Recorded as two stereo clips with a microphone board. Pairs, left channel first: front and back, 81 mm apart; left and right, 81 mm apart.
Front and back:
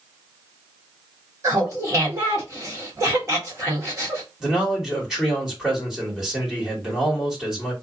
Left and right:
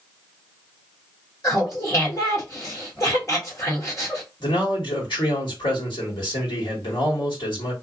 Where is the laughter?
135° left, 1.5 m.